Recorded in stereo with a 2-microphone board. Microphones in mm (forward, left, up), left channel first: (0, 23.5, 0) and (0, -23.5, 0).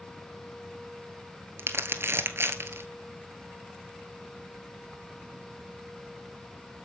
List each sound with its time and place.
1.6 s crumpling: 60° right (ahead or behind), 1.1 m